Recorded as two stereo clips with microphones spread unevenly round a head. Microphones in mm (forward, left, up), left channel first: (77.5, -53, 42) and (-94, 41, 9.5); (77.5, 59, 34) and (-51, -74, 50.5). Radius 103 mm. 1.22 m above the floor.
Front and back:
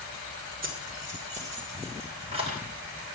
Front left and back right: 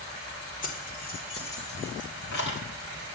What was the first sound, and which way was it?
Keys jangling, 100° left.